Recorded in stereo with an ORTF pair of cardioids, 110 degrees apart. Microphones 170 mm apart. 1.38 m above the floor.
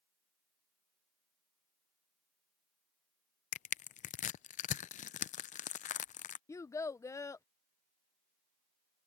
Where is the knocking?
No knocking in this recording.